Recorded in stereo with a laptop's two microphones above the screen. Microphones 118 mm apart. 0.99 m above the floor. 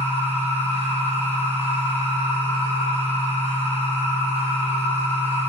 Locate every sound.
0.0 s a machine running: 45° right (ahead or behind), 1.5 m